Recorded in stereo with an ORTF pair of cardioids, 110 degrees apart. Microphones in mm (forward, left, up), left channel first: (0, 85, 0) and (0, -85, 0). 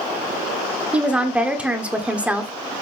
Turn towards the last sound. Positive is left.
turn(degrees=-10)